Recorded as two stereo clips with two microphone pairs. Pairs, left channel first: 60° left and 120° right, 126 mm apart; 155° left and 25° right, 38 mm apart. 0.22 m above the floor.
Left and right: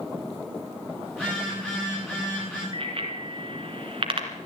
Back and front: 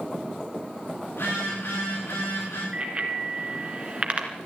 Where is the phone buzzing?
140° left, 9 m.